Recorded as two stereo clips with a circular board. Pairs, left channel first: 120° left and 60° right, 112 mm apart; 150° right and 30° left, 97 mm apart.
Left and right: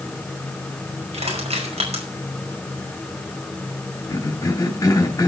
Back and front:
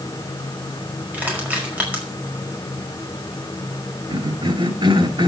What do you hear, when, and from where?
1.1 s crushing: 45° right, 5 m
4.1 s a cough: 60° left, 2.5 m